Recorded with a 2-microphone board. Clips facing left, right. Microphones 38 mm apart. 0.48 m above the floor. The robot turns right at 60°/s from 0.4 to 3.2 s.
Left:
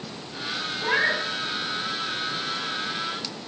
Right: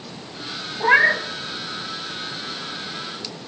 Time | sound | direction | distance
0.8 | a cat meowing | 55° right (ahead or behind) | 0.8 m